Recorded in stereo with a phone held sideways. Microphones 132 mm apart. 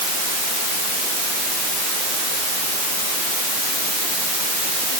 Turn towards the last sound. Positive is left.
No sound to turn to.